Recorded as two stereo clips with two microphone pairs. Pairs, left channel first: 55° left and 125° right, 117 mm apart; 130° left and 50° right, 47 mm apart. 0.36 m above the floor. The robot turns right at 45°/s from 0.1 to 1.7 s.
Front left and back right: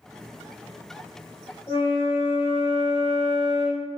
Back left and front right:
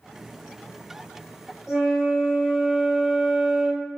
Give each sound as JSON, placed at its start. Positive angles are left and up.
{"t": 1.7, "sound": "a flute", "azimuth_deg": 30, "distance_m": 1.1}